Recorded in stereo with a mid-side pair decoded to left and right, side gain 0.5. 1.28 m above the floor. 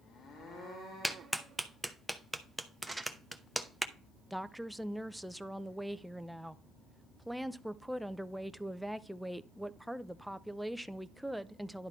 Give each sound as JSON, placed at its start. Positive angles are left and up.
{"t": 1.0, "sound": "a clap", "azimuth_deg": -5, "distance_m": 0.9}
{"t": 2.9, "sound": "crumpling", "azimuth_deg": -10, "distance_m": 1.3}
{"t": 4.3, "sound": "a woman speaking", "azimuth_deg": -5, "distance_m": 0.6}